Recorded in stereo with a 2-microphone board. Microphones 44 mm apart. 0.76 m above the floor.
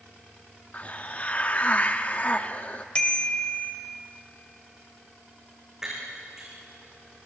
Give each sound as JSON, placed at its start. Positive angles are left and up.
{"t": 0.7, "sound": "a hiss", "side_deg": 30, "distance_m": 0.8}
{"t": 3.0, "sound": "a bicycle bell", "side_deg": 20, "distance_m": 2.5}
{"t": 5.8, "sound": "breaking glass", "side_deg": -15, "distance_m": 7.5}